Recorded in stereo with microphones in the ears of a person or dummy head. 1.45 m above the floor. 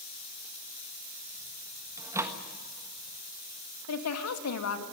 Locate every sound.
2.0 s a microwave: 15° right (ahead or behind), 1.3 m
3.9 s a woman speaking: 85° left, 2.5 m